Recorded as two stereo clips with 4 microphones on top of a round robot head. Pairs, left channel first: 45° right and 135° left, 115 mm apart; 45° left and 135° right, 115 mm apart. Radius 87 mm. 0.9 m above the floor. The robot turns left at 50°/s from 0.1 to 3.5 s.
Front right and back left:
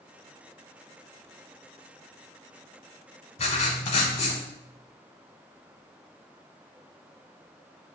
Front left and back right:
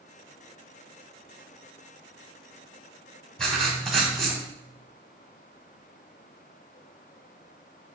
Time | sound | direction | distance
3.4 | writing | 40° right | 0.8 m